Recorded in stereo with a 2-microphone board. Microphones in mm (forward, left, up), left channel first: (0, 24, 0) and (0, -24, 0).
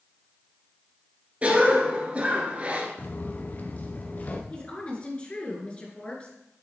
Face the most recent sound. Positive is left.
turn(degrees=25)  # may be behind; listen again after turning